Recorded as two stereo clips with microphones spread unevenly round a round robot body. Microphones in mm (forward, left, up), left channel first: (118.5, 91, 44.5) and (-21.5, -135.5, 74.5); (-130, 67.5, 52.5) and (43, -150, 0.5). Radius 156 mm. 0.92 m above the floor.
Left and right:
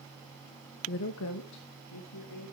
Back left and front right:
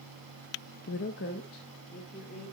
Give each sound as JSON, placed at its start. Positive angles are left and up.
{"t": 0.9, "sound": "a woman speaking", "azimuth_deg": 85, "distance_m": 0.6}